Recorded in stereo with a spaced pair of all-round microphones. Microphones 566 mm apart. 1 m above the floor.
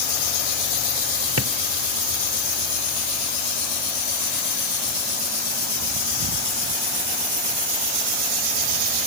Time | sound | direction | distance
1.4 | a drawer | 25° right (ahead or behind) | ?